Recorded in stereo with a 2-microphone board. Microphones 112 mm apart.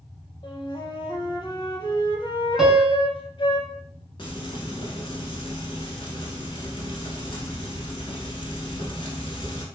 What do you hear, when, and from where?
0.4 s a flute: 45° left (ahead or behind), 0.5 m
2.6 s a piano: 5° right (ahead or behind), 0.6 m
4.2 s frying: 50° left (ahead or behind), 0.8 m